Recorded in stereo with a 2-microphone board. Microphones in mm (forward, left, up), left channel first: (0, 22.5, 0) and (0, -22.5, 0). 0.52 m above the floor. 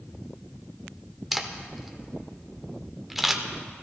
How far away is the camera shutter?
About 0.8 m.